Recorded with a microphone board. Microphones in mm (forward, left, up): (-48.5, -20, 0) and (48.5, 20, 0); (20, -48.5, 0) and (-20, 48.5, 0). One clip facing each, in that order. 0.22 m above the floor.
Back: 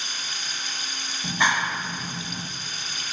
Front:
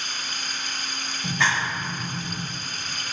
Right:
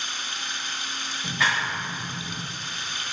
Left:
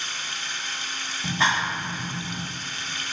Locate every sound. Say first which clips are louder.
0.0 s running water: front 2 dB, even; 5° left, 1.2 m
1.2 s a clap: back 1 dB, left 2 dB; 140° left, 1.1 m